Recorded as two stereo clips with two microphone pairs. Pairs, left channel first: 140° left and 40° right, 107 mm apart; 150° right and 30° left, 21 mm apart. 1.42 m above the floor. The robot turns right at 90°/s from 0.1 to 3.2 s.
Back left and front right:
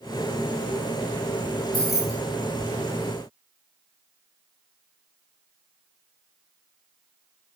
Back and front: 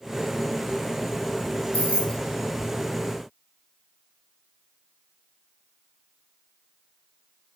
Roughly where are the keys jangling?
Behind right.